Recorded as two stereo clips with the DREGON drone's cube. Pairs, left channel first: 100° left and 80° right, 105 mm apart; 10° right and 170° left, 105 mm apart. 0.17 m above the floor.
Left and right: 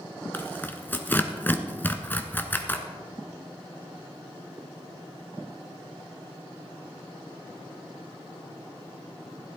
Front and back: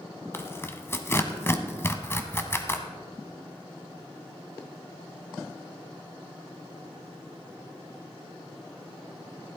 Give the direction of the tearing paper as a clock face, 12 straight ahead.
11 o'clock.